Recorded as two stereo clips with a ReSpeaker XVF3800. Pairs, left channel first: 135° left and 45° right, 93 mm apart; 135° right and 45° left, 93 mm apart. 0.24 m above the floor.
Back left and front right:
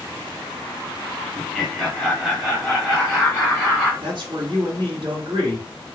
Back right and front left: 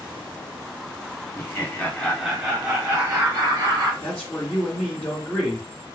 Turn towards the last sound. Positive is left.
turn(degrees=-65)